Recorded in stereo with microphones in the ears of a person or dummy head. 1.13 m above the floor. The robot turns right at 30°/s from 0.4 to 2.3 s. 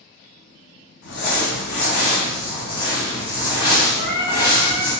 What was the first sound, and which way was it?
Crumpling, 115° left.